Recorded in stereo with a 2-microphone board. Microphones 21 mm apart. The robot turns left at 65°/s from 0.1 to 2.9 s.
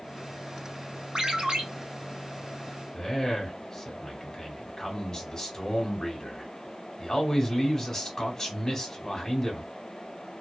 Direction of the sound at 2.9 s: 25° left (ahead or behind).